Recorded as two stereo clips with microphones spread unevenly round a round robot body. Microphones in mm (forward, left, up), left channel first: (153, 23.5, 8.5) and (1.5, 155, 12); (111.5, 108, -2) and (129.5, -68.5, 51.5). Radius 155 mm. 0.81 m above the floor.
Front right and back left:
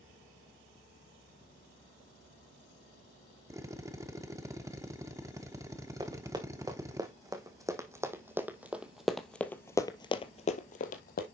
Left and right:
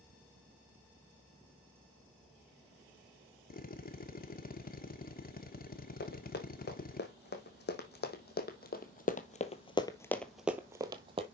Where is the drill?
65° left, 1.2 m.